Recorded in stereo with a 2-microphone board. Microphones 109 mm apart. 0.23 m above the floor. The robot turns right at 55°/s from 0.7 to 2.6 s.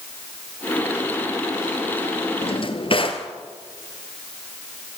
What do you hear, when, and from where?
2.4 s a drawer: 60° left (ahead or behind), 1.8 m; by 3.3 s 50° left (ahead or behind), 1.8 m